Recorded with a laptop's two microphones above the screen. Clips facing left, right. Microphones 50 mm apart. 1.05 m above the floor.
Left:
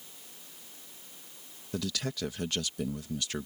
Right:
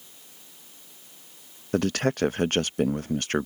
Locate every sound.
1.7 s a man speaking: 50° right (ahead or behind)